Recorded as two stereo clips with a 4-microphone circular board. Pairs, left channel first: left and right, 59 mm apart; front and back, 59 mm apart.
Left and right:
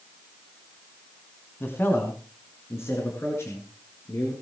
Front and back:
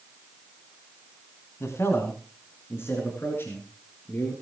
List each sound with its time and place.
1.6 s a man speaking: 45° left, 3 m; by 4.3 s 50° left, 7 m